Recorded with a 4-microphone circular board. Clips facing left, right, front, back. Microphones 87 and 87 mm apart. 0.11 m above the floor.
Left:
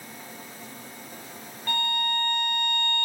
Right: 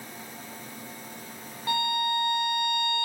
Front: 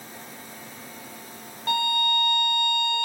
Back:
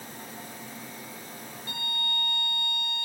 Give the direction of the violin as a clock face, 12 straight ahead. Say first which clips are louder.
Right 2 dB, front 12 dB; 12 o'clock.